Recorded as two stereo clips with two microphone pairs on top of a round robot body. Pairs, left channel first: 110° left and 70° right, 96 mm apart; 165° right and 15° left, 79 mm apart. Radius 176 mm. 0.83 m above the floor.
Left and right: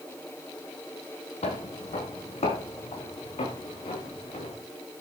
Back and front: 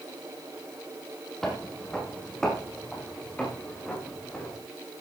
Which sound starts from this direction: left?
Footsteps, at 1.4 s.